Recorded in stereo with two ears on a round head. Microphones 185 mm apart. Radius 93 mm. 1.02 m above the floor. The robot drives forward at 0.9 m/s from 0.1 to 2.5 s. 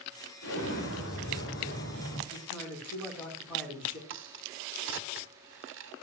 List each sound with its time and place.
0.4 s an explosion: 70° left (ahead or behind), 5 m; by 2.2 s 55° left (ahead or behind), 5.5 m
2.3 s a man speaking: 5° left (ahead or behind), 8 m
4.1 s a crack: 60° right (ahead or behind), 1.1 m